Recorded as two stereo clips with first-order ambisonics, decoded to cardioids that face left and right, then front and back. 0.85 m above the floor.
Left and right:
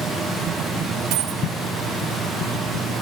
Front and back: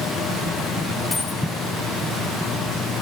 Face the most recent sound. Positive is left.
turn(degrees=-75)